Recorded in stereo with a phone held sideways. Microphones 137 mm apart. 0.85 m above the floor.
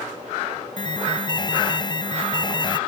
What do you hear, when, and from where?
0.8 s an alarm: 35° left (ahead or behind)